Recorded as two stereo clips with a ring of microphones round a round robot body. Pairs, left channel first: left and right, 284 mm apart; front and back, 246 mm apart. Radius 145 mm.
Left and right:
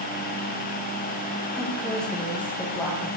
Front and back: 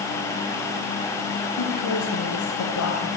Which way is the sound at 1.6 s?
Straight ahead.